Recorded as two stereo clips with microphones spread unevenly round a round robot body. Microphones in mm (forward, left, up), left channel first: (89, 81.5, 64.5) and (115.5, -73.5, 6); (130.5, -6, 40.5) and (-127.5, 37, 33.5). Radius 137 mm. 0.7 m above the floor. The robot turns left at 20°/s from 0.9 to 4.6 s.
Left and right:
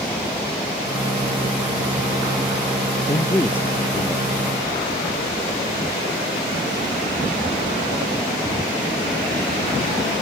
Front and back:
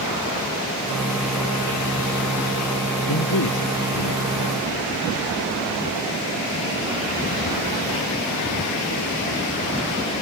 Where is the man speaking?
30° left; by 4.3 s 10° left.